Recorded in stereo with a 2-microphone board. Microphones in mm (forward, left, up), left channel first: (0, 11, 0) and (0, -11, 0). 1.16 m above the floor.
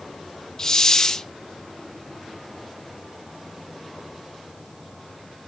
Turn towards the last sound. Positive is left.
turn(degrees=30)  # may be behind; listen again after turning